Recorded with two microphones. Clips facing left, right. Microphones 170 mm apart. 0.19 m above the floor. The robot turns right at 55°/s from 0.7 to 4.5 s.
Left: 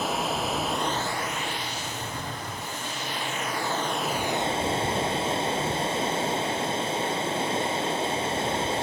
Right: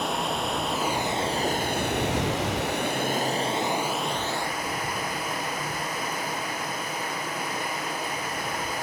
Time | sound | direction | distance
0.0 | running water | straight behind | 1.0 m